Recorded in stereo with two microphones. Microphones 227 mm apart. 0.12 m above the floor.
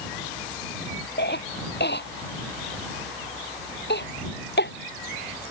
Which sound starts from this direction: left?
A cough, at 1.2 s.